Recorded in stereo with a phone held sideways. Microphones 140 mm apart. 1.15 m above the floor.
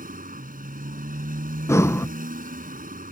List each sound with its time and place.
0.0 s a motorcycle: 85° right
1.7 s breathing: 20° left (ahead or behind)